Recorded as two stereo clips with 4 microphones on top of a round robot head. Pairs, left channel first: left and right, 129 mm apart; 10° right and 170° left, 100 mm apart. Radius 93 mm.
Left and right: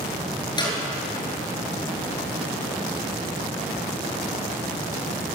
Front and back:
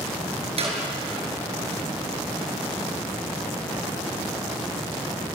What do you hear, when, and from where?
0.6 s a clap: 150° left, 7 m